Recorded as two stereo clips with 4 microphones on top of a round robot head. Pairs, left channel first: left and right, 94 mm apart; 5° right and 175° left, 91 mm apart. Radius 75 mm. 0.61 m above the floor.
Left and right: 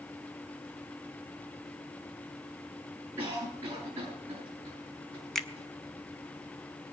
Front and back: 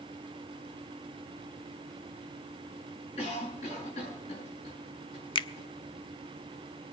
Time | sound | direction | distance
3.2 | a cough | 20° right | 7.5 m
5.3 | a finger snap | 5° left | 0.7 m